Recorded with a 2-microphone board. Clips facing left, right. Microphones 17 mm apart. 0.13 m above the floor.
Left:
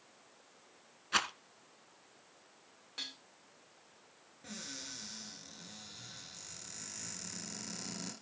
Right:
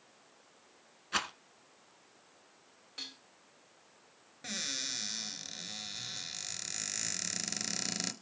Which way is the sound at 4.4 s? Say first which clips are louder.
Right 9 dB; 45° right (ahead or behind).